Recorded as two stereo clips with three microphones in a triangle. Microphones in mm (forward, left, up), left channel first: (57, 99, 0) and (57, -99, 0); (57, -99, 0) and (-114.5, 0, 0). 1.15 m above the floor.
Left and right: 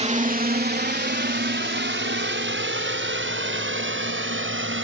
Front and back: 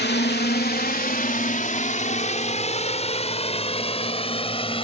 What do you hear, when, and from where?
0.0 s a drone: 40° right; by 4.8 s 90° right